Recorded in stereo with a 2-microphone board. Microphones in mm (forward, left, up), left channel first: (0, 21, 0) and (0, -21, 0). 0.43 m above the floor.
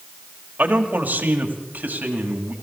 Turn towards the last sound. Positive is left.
turn(degrees=-45)  # may be behind; listen again after turning